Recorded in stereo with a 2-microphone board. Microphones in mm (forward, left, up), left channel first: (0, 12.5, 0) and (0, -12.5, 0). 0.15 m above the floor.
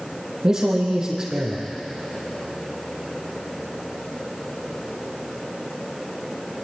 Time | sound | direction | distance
0.4 | a man speaking | 25° right (ahead or behind) | 4.5 m